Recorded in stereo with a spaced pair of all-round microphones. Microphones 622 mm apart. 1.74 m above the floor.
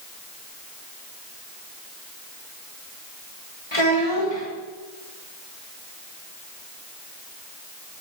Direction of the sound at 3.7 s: 45° left (ahead or behind).